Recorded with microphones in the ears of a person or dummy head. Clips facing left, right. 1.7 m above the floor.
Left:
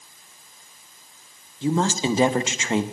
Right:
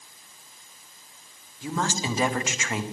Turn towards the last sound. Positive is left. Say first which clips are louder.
# left 7 dB
turn(degrees=25)  # may be behind; listen again after turning